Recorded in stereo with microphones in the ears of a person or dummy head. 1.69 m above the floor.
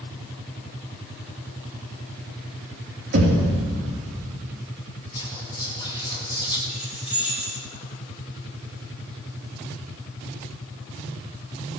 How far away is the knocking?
About 3 m.